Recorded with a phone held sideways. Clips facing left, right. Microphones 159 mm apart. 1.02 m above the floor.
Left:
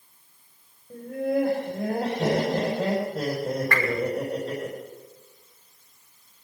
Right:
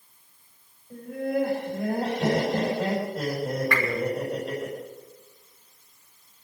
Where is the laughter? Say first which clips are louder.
Left 2 dB; 35° left (ahead or behind), 4.5 m.